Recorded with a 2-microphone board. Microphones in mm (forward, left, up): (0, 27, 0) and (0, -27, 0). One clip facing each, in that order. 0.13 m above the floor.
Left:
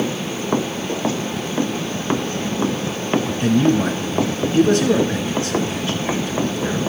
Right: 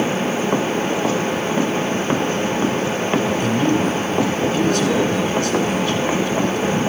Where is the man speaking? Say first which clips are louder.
Left 1 dB; 25° left (ahead or behind), 1.2 m.